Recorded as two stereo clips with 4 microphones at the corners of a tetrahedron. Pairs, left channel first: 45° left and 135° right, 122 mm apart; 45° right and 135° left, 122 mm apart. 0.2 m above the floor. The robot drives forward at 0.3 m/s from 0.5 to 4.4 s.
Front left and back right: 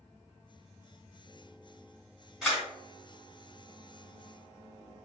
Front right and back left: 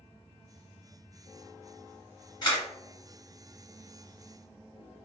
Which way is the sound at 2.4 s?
50° right.